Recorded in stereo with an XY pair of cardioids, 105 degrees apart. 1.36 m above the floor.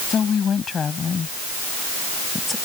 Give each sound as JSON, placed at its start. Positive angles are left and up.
{"t": 0.1, "sound": "a woman speaking", "azimuth_deg": 45}